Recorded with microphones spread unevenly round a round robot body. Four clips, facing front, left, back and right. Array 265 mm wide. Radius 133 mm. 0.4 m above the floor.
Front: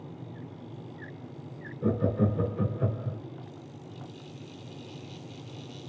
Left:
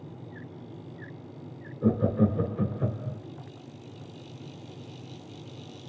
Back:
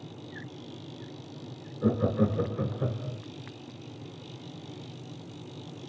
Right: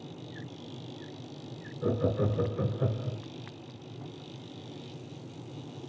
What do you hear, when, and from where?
1.8 s laughter: 150° left, 0.9 m; by 3.2 s 55° right, 0.9 m